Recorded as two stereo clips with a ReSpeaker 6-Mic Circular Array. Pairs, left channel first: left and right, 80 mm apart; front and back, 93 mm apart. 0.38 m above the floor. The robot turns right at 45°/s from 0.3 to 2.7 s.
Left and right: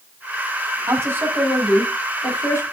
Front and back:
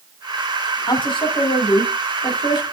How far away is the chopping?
I don't hear chopping.